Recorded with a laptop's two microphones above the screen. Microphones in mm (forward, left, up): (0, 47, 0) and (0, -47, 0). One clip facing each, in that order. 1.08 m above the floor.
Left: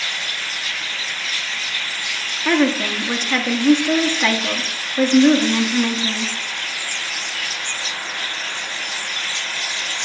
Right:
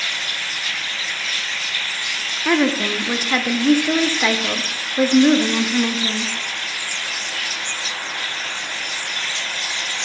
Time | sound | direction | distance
2.5 | a woman speaking | 10° right (ahead or behind) | 0.5 m